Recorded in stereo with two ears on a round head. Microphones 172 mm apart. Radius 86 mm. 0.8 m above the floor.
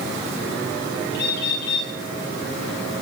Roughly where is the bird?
Left.